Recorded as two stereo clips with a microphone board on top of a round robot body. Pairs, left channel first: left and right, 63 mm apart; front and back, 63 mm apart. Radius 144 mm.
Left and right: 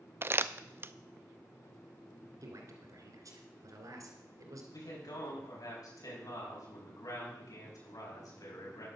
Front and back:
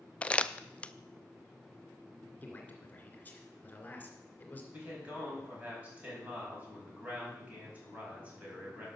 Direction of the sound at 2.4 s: 65° right.